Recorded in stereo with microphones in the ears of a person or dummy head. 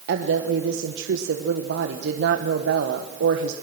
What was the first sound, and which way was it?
A woman speaking, 60° right (ahead or behind).